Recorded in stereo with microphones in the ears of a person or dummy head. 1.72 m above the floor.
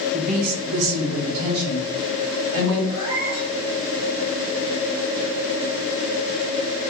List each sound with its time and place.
0.1 s a woman speaking: 30° right (ahead or behind), 0.6 m; by 2.8 s 80° right, 2.0 m
2.9 s a cat meowing: 25° right (ahead or behind), 1.6 m